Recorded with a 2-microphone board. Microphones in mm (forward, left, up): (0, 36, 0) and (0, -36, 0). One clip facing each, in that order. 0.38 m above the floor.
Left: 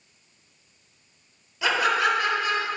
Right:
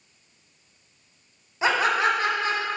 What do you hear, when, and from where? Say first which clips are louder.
1.6 s laughter: right 1 dB; 30° right (ahead or behind), 1.4 m